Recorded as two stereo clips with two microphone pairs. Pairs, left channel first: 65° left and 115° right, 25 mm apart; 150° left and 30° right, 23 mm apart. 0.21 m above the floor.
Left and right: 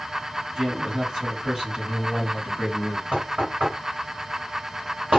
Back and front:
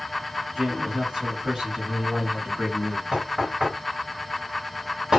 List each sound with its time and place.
0.6 s a man speaking: 80° right, 1.5 m
3.1 s knocking: 100° right, 1.7 m